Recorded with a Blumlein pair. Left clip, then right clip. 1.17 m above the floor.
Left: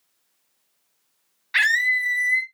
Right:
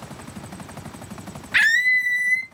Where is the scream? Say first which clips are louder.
Right 2 dB; 15° right, 0.8 m.